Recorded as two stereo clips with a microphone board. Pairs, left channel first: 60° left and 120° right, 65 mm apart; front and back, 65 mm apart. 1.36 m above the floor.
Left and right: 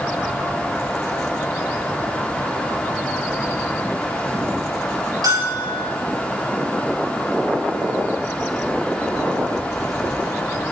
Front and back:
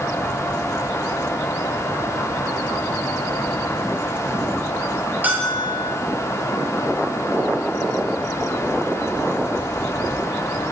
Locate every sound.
5.2 s a bell: 115° right, 5.5 m